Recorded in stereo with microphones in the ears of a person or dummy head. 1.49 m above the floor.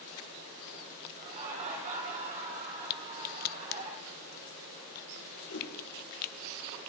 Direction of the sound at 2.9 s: 45° left (ahead or behind).